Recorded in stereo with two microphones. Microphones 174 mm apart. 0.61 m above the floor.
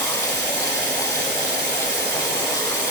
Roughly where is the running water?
Right.